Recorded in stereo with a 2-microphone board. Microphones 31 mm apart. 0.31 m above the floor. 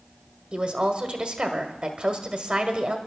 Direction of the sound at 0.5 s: 35° right (ahead or behind).